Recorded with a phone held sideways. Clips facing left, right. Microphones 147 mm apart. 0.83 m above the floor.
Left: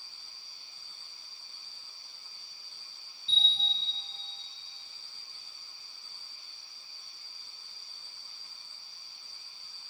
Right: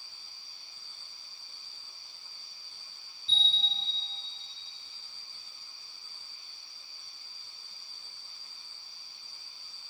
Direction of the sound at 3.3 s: 20° left (ahead or behind).